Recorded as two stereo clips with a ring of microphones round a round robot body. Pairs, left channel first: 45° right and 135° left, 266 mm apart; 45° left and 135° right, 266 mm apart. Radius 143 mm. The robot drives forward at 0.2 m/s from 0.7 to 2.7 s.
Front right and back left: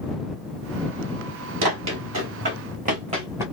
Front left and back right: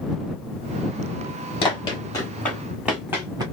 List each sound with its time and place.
1.6 s running footsteps: 110° left, 1.5 m; by 3.4 s 170° right, 1.0 m